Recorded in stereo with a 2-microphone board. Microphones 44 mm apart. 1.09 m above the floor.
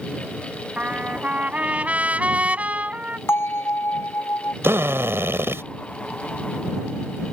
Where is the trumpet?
30° right (ahead or behind).